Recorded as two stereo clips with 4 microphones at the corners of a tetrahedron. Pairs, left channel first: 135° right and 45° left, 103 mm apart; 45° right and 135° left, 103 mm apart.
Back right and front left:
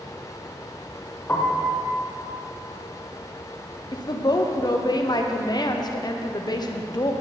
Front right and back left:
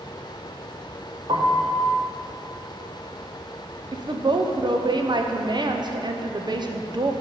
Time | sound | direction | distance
1.3 | a piano | 155° left | 1.0 m
3.9 | a woman speaking | straight behind | 0.7 m